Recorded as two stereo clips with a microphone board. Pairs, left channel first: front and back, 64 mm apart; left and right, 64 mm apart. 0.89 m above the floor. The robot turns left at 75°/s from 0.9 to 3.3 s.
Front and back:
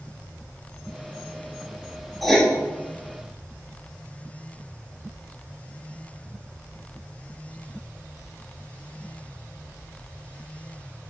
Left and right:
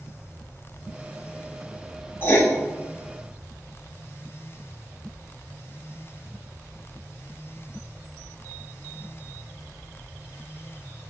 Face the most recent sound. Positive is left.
turn(degrees=5)